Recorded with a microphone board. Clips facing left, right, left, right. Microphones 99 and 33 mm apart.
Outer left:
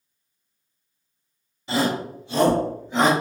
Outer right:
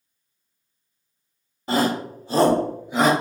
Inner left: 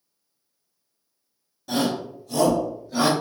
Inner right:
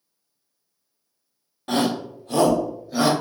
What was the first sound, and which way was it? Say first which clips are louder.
A shout: outer right 2 dB, inner right 2 dB; 50° right (ahead or behind).